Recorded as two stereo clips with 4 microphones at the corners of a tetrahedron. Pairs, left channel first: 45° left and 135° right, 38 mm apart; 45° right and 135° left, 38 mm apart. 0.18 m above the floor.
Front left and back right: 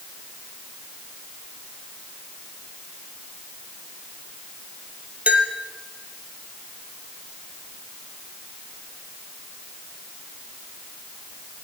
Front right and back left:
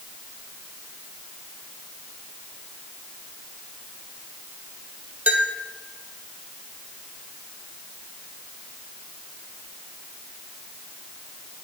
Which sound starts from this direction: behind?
A bell, at 5.3 s.